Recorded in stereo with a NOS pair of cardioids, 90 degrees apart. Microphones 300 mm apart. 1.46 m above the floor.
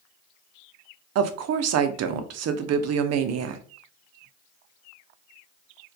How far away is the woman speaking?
About 0.5 m.